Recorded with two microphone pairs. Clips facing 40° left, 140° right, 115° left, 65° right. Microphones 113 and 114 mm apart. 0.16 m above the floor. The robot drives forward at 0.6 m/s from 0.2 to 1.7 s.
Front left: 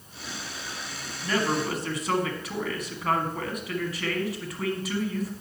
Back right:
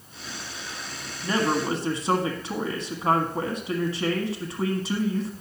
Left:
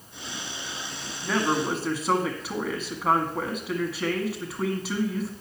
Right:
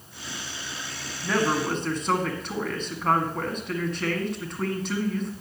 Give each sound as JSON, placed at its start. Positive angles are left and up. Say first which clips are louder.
{"t": 1.2, "sound": "a man speaking", "louder": "back right 2 dB, right 1 dB", "azimuth_deg": -160, "distance_m": 1.5}